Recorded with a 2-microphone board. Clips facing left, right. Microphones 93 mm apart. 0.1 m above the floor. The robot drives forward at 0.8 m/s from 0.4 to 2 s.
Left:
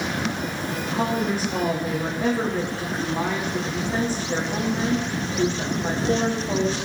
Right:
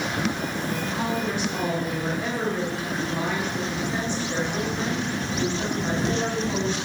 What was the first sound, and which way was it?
A woman speaking, 40° left (ahead or behind).